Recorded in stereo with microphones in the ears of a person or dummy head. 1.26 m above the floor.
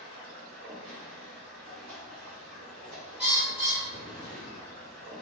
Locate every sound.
0.0 s running water: 50° right (ahead or behind), 1.5 m
3.2 s a bird: 5° right (ahead or behind), 0.9 m